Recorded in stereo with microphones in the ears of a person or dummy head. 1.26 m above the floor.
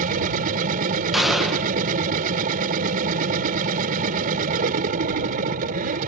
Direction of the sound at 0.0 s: 50° right (ahead or behind).